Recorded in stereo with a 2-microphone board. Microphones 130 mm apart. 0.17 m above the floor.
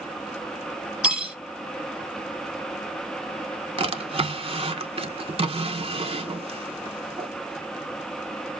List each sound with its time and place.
1.0 s cutlery clinking: 10° right (ahead or behind), 0.7 m
3.8 s a drawer: 45° right (ahead or behind), 0.5 m